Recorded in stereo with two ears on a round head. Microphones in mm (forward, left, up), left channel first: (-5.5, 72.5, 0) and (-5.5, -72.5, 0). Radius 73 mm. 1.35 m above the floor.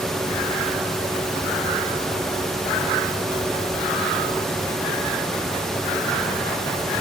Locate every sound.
Only background noise.